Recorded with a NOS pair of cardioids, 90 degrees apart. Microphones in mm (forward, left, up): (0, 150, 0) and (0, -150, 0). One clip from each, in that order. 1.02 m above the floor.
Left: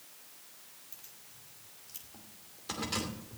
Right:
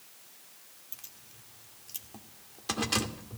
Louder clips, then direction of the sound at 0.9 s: Right 7 dB; 45° right.